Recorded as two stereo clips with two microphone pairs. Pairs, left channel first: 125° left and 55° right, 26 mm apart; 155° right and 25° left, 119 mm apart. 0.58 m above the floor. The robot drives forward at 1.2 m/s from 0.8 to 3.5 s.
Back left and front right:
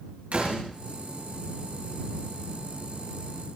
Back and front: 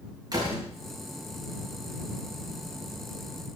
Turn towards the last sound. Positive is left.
turn(degrees=-45)